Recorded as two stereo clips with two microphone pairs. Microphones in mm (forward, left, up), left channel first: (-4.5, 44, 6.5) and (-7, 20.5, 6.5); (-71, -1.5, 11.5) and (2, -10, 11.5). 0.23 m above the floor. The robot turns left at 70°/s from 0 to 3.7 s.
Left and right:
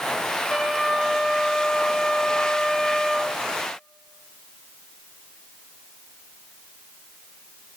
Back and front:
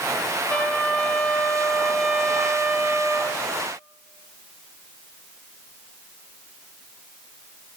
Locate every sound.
0.5 s a trumpet: 155° right, 0.8 m; by 3.4 s straight ahead, 0.8 m